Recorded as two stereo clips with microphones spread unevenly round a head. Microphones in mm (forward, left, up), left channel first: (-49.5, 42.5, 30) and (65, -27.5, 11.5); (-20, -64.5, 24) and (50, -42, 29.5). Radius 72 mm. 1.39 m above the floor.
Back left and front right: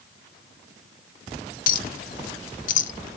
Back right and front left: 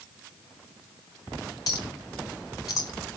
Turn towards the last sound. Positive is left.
turn(degrees=130)